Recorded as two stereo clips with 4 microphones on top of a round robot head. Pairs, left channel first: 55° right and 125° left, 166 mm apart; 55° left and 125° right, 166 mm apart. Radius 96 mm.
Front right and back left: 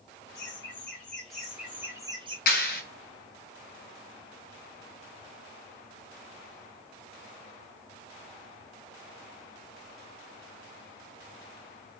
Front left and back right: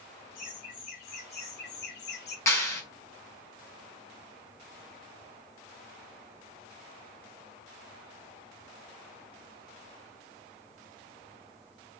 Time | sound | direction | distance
0.3 | laughter | 20° left | 4 m
2.5 | a clap | 20° right | 3.5 m